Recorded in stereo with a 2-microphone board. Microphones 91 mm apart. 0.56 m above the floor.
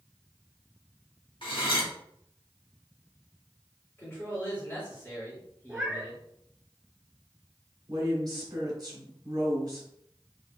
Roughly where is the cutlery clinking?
Left.